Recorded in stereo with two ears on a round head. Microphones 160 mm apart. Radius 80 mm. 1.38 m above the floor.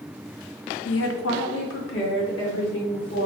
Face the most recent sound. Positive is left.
turn(degrees=75)  # may be behind; listen again after turning